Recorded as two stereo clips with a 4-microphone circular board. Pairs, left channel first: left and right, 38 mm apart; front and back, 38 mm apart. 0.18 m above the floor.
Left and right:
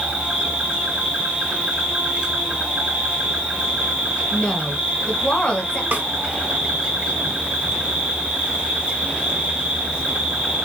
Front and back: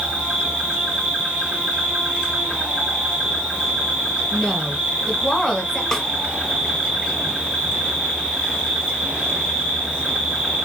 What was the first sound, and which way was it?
An insect, 125° right.